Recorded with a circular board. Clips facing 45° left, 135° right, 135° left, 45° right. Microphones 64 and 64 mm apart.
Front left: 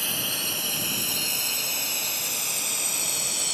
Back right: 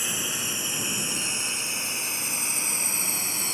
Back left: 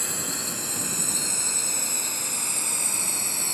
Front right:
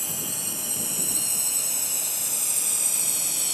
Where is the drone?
155° left; by 3.5 s 170° left.